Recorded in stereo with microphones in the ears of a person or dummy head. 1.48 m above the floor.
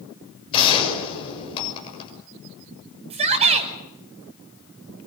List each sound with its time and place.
0.5 s a gunshot: 30° left (ahead or behind), 6.5 m
3.1 s a shout: 30° right (ahead or behind), 5 m